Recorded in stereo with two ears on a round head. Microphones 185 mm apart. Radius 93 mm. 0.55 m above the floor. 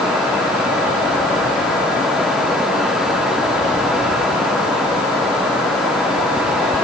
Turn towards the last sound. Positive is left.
No sound to turn to.